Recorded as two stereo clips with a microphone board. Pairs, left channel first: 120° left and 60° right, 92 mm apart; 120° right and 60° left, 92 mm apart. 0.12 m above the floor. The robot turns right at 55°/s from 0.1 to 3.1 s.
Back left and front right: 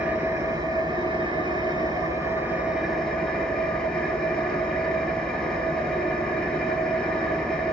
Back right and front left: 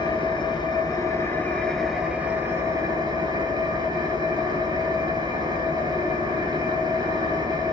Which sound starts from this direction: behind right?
An engine running, at 0.0 s.